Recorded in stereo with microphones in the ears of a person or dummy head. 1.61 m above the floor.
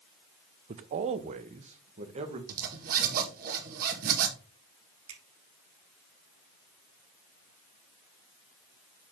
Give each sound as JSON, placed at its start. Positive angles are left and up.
{"t": 0.7, "sound": "a man speaking", "side_deg": -35, "distance_m": 0.6}
{"t": 2.5, "sound": "a zipper", "side_deg": -50, "distance_m": 1.9}
{"t": 5.1, "sound": "a finger snap", "side_deg": -85, "distance_m": 3.0}